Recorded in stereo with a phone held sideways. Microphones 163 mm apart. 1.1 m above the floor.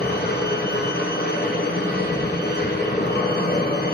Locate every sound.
0.0 s a machine running: 80° left, 0.8 m